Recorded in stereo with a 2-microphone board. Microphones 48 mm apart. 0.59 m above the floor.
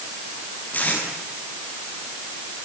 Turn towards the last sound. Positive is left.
turn(degrees=35)  # may be behind; listen again after turning